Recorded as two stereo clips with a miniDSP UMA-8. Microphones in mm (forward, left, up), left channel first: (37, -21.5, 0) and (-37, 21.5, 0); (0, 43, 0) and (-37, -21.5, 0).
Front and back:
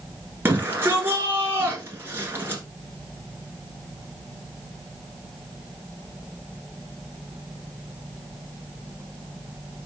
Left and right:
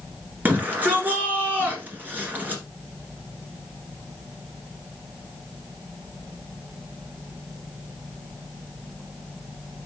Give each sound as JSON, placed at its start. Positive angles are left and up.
{"t": 0.5, "sound": "a shout", "azimuth_deg": -170, "distance_m": 1.5}